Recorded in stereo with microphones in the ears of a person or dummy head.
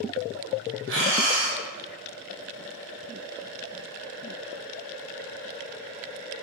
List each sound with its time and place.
0.9 s breathing: 65° right (ahead or behind), 0.8 m